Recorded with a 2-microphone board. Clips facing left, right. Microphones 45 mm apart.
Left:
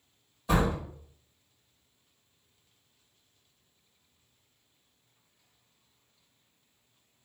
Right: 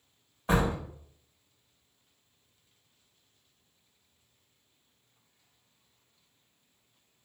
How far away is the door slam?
About 2.0 m.